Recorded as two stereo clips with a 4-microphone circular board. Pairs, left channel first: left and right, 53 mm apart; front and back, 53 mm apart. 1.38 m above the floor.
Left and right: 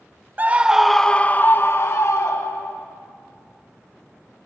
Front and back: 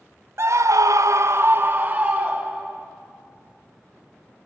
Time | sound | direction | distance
0.4 | a scream | 150° right | 0.5 m